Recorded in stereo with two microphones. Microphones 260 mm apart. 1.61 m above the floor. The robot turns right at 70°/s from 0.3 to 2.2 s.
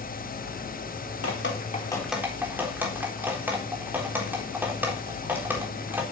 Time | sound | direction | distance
1.2 | dripping | 60° left (ahead or behind) | 4 m